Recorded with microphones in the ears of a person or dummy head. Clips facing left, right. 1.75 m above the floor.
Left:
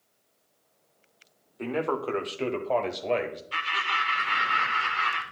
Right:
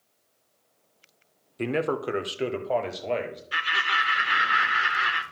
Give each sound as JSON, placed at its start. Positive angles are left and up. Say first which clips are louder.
{"t": 1.6, "sound": "a man speaking", "louder": "right 2 dB", "side_deg": -40, "distance_m": 0.5}
{"t": 3.5, "sound": "laughter", "louder": "right 1 dB", "side_deg": -10, "distance_m": 0.5}